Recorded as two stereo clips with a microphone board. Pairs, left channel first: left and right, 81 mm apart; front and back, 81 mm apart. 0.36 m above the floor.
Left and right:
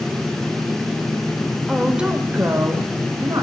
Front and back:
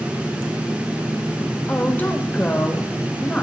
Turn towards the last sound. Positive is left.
turn(degrees=-60)